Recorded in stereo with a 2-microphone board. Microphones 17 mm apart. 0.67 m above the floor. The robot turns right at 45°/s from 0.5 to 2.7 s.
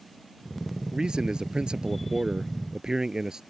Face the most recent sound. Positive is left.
turn(degrees=-45)